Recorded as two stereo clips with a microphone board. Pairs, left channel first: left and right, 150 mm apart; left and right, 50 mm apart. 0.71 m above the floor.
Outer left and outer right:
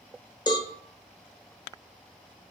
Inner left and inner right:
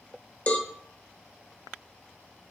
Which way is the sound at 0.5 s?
30° left (ahead or behind).